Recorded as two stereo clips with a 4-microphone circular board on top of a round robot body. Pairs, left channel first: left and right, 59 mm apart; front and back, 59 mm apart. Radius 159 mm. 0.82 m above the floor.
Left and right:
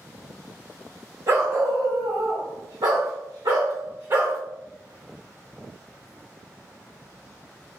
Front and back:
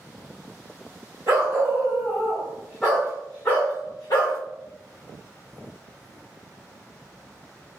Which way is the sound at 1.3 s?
130° right.